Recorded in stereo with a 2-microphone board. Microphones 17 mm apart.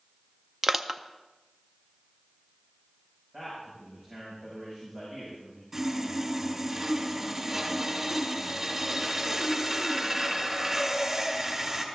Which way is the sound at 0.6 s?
25° right (ahead or behind).